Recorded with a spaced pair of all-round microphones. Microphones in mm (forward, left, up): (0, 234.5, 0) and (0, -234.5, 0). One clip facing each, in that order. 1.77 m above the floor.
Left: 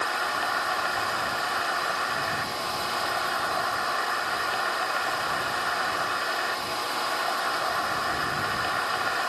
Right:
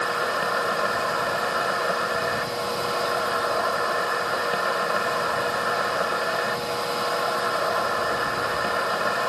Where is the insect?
70° right (ahead or behind).